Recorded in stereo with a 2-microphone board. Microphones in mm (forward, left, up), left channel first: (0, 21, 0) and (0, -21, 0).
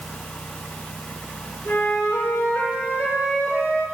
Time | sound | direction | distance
1.6 | a flute | 85° left | 1.3 m